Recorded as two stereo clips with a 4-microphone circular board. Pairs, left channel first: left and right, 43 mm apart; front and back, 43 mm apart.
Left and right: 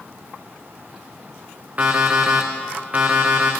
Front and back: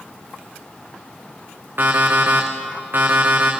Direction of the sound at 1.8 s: 145° right.